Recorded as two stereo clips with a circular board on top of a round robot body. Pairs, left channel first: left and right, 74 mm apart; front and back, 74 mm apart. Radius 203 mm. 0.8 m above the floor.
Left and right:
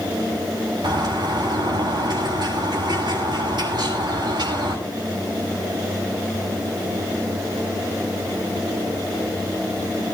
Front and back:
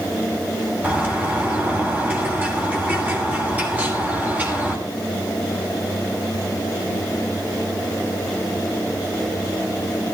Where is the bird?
115° right, 9 m.